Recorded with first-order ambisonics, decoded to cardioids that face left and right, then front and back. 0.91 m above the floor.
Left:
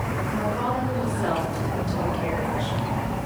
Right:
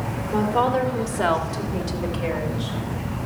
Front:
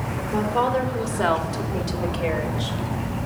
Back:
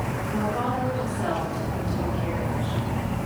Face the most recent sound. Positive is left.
turn(degrees=-5)